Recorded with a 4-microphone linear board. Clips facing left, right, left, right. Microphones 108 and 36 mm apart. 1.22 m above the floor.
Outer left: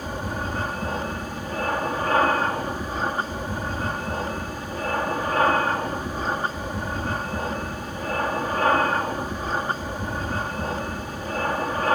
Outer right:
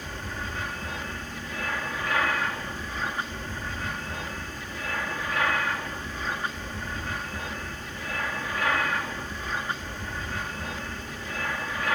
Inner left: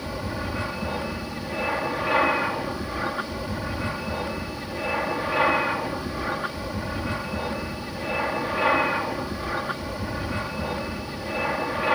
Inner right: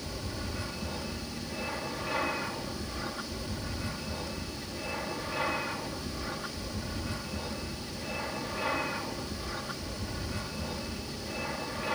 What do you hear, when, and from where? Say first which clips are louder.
0.0 s an aircraft: outer left 7 dB, inner left 8 dB; 40° left (ahead or behind)